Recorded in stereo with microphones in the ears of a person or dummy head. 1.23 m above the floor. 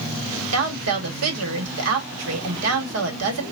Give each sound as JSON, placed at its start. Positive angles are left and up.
{"t": 0.5, "sound": "a woman speaking", "side_deg": -80, "distance_m": 1.8}